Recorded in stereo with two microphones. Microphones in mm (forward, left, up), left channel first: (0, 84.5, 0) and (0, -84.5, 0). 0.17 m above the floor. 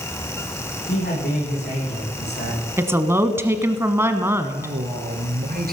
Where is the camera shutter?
I don't hear a camera shutter.